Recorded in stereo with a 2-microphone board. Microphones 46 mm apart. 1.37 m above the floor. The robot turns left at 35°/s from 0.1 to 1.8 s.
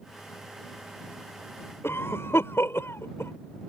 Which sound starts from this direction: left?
A cough, at 1.8 s.